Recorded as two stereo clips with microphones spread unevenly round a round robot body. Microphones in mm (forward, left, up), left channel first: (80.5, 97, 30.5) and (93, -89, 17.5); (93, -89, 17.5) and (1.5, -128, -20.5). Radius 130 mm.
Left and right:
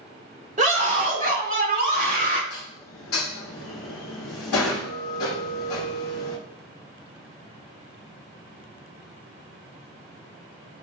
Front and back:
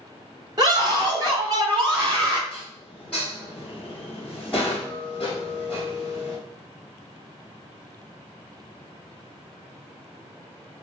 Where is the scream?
140° right, 1.9 m; by 2.4 s 135° right, 3 m.